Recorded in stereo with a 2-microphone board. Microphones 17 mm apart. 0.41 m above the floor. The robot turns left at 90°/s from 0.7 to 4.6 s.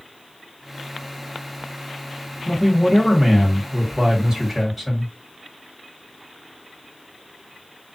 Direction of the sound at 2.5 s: 35° left.